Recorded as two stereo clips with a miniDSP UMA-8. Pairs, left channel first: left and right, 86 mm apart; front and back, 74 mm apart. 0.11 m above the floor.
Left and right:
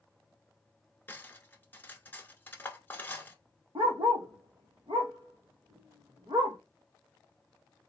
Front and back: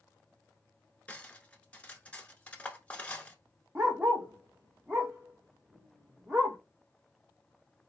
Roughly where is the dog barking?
Right.